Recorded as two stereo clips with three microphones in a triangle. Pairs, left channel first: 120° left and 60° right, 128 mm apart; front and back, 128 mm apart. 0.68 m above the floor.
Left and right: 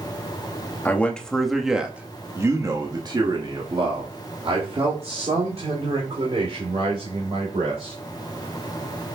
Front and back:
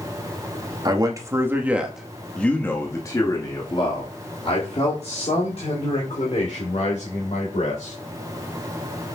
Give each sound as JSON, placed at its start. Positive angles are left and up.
{"t": 0.8, "sound": "a man speaking", "azimuth_deg": -175, "distance_m": 1.2}